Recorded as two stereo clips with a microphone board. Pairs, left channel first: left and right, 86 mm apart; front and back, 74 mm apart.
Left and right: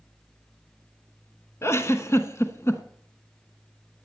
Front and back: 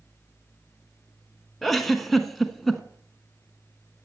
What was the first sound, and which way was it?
A giggle, 85° left.